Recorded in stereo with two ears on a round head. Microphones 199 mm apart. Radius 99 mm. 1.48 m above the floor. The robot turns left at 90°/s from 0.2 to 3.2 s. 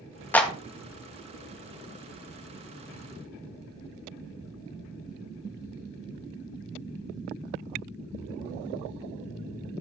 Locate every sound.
0.3 s a clap: 10° left (ahead or behind), 1.5 m; by 0.5 s 10° right (ahead or behind), 1.5 m